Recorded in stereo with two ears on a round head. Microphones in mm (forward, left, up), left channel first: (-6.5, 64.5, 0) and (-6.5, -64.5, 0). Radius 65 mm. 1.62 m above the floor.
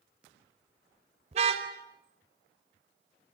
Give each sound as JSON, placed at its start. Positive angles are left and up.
{"t": 1.3, "sound": "a car horn", "side_deg": -40, "distance_m": 3.5}